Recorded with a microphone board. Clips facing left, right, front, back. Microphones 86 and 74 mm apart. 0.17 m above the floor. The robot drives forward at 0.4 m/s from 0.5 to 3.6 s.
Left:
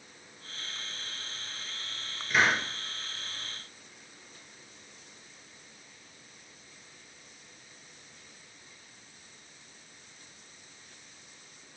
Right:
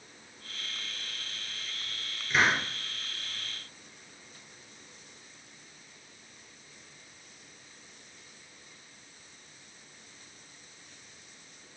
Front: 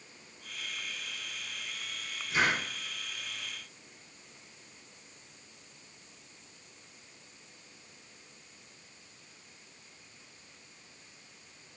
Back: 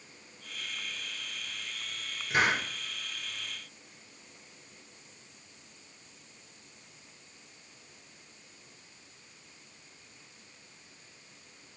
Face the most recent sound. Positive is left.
turn(degrees=180)